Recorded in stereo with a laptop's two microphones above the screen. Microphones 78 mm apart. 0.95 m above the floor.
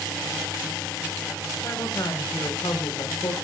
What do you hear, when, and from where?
1.6 s a woman speaking: 55° left (ahead or behind), 3.5 m; by 3.3 s 80° left, 3.5 m